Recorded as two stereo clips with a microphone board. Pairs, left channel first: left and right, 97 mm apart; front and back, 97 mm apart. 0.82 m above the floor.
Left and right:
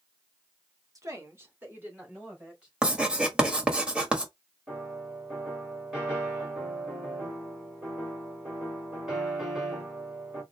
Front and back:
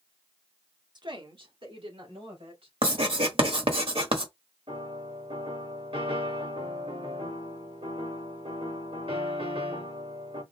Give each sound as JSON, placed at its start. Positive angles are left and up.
{"t": 0.9, "sound": "a woman speaking", "azimuth_deg": -140, "distance_m": 1.1}
{"t": 2.8, "sound": "writing", "azimuth_deg": -170, "distance_m": 1.2}
{"t": 4.7, "sound": "a piano", "azimuth_deg": -170, "distance_m": 3.5}